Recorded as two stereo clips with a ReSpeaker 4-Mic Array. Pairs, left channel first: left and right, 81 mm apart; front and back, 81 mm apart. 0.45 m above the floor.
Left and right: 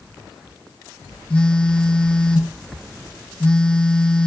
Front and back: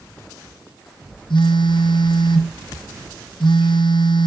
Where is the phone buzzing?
15° left, 1.4 m.